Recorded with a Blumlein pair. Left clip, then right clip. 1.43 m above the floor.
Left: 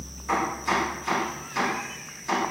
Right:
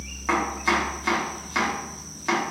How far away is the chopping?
About 1.6 m.